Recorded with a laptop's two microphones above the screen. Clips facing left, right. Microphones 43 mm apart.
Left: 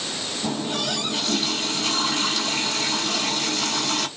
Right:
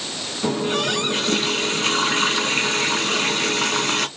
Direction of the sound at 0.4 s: 45° right (ahead or behind).